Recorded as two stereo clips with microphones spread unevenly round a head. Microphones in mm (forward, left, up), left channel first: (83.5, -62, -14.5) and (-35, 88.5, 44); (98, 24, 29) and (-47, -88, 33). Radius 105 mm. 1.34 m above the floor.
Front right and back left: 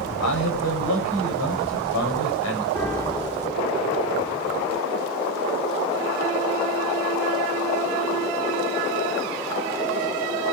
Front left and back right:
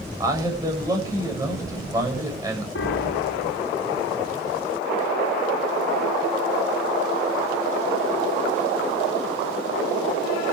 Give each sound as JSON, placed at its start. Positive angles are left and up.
{"t": 0.2, "sound": "a man speaking", "azimuth_deg": -70, "distance_m": 8.0}
{"t": 2.8, "sound": "a piano", "azimuth_deg": 20, "distance_m": 3.0}